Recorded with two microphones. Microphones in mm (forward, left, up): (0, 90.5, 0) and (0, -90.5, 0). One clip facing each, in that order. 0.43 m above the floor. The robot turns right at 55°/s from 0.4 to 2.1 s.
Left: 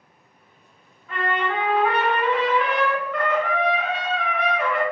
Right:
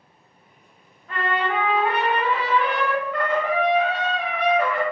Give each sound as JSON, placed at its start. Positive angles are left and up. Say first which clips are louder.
{"t": 1.1, "sound": "a trumpet", "louder": "even", "azimuth_deg": -70, "distance_m": 1.5}